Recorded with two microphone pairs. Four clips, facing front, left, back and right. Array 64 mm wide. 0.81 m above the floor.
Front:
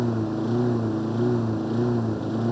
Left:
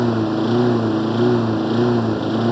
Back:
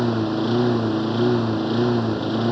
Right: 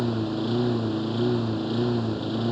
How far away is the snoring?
No snoring in this recording.